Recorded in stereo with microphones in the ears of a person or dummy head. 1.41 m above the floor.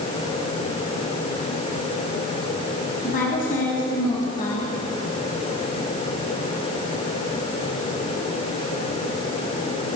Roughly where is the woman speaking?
Left.